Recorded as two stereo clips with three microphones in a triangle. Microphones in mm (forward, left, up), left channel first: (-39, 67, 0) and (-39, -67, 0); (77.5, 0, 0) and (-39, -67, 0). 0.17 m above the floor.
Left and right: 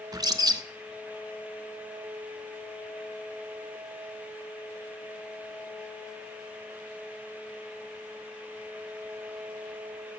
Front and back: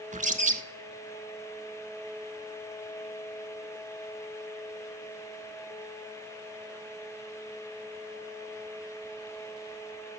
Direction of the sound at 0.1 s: 150° right.